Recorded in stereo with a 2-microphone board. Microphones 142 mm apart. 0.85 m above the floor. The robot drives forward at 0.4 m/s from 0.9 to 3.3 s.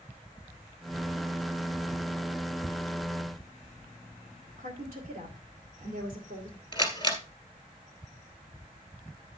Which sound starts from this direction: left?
A camera shutter, at 6.7 s.